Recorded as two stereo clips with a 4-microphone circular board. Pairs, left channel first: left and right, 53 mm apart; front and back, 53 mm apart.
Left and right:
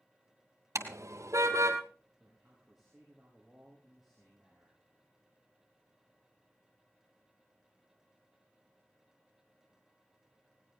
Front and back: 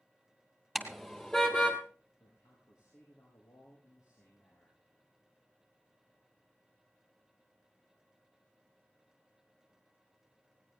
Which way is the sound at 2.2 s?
10° right.